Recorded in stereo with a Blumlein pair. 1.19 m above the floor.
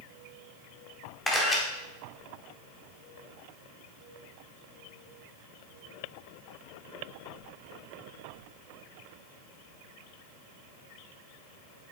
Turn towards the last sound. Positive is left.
turn(degrees=10)